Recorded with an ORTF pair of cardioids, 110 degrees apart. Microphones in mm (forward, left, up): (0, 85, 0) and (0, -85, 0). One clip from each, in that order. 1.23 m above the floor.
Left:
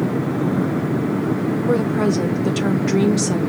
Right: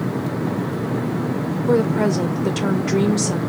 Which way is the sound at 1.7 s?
Straight ahead.